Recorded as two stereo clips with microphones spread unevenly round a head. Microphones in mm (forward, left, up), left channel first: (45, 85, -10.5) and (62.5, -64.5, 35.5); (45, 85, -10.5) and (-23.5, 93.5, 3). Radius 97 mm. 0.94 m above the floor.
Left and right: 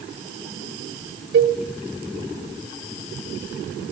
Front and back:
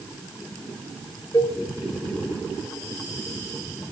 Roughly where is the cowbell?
Right.